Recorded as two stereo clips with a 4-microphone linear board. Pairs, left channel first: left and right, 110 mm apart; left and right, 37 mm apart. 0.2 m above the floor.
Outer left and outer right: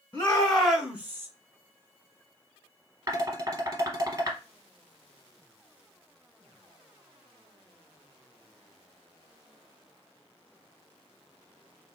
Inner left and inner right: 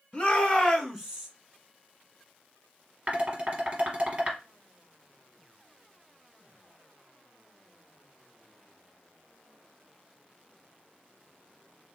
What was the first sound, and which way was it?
A shout, 25° left (ahead or behind).